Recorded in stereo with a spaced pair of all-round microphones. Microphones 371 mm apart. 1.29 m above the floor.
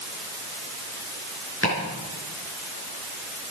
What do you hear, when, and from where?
1.6 s chopping: 35° left (ahead or behind), 5.5 m